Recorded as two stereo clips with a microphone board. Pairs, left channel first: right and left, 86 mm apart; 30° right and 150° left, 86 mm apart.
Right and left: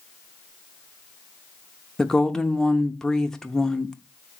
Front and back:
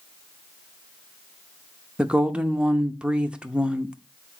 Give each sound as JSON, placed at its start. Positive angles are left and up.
{"t": 2.0, "sound": "a woman speaking", "azimuth_deg": -160, "distance_m": 0.7}